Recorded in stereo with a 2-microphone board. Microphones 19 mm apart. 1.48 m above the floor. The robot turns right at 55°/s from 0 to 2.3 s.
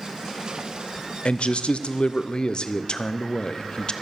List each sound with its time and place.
1.2 s a man speaking: 70° left, 0.8 m; by 3.9 s 130° left, 0.8 m